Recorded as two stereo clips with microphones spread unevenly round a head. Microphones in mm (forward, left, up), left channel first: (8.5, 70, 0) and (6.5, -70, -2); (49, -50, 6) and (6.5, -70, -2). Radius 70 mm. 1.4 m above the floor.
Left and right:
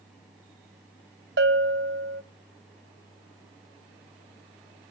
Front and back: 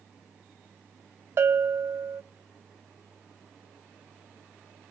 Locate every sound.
1.4 s a bell: 115° right, 1.2 m